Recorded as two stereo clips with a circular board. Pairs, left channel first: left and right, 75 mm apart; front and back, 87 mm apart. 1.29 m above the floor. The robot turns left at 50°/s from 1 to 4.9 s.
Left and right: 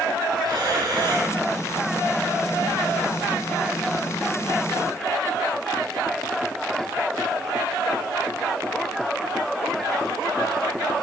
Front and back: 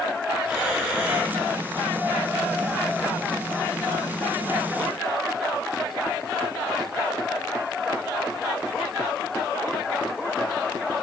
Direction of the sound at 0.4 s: 105° right.